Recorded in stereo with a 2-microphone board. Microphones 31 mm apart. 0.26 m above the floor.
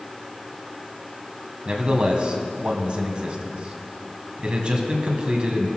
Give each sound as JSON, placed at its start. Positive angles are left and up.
{"t": 1.6, "sound": "a man speaking", "side_deg": -35, "distance_m": 2.0}